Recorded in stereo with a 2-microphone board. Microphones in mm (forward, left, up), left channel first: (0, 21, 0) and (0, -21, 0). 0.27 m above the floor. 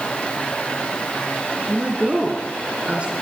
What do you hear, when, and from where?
1.7 s a woman speaking: 35° right (ahead or behind), 3 m